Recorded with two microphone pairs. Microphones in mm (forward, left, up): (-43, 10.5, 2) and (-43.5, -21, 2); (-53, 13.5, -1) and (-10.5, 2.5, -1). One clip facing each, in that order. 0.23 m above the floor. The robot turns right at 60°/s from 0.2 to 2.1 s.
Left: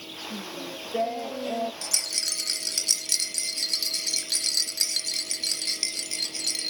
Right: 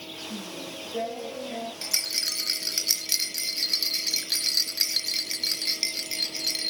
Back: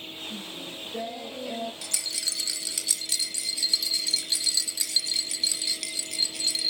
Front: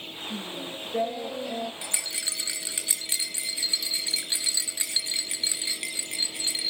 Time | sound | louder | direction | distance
0.3 | singing | left 2 dB, front 3 dB | straight ahead | 3 m
1.8 | a rattle | right 1 dB, front 1 dB | 50° right | 1.1 m